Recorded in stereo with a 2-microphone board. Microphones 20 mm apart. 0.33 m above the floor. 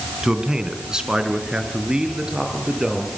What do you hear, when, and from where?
0.2 s a man speaking: 45° right (ahead or behind), 2.5 m